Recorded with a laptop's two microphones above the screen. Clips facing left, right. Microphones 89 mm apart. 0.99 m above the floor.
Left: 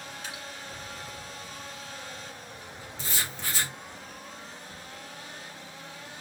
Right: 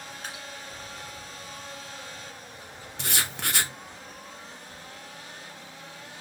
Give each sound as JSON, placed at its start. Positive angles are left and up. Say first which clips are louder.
{"t": 0.2, "sound": "dripping", "louder": "right 2 dB", "side_deg": -50, "distance_m": 1.7}
{"t": 3.0, "sound": "writing", "louder": "right 4 dB", "side_deg": -70, "distance_m": 0.5}